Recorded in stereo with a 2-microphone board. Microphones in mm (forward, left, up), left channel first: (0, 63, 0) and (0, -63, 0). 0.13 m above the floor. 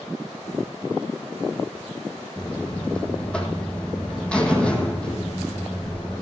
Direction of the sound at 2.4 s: 10° left (ahead or behind).